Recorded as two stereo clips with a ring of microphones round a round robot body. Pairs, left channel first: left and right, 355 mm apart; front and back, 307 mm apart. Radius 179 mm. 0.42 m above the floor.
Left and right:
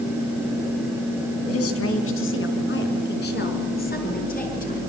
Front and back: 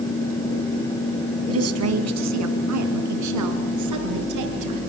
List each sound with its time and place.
1.5 s a woman speaking: 140° left, 3.5 m; by 4.8 s 160° left, 7 m